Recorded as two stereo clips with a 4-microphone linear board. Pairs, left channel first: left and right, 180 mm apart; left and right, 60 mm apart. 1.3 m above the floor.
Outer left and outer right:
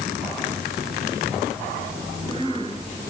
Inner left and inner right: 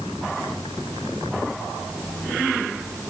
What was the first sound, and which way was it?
Only background noise.